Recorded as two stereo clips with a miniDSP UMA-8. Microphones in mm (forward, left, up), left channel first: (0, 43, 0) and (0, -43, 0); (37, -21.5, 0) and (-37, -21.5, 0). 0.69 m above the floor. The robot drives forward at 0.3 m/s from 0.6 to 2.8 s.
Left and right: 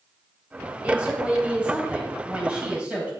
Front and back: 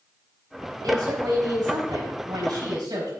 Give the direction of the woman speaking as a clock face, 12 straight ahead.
5 o'clock.